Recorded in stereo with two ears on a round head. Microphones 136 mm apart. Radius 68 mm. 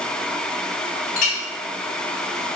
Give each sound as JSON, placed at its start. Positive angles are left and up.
{"t": 1.2, "sound": "a clink", "side_deg": 50, "distance_m": 0.7}